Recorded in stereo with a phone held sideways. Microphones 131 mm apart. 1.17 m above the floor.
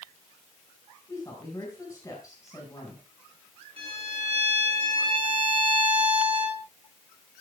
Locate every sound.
1.1 s a woman speaking: 25° left (ahead or behind), 5 m
3.8 s a violin: 45° right (ahead or behind), 8 m